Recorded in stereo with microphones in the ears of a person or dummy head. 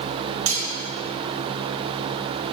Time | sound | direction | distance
0.5 | cutlery clinking | 85° right | 2.5 m